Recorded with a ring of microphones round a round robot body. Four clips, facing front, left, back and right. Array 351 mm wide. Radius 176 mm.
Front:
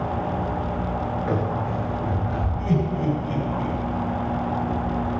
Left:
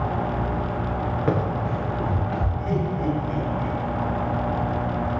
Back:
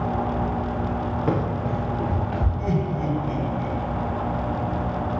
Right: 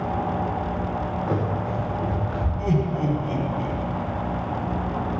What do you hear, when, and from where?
1.3 s running footsteps: 125° left, 7.5 m; by 2.5 s 130° left, 9 m
2.6 s laughter: 100° right, 4.5 m